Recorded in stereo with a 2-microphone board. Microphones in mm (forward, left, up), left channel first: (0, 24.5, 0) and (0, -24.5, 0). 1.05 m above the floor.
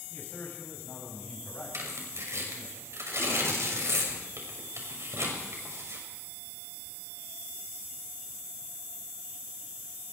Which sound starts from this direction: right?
Tearing paper, at 1.7 s.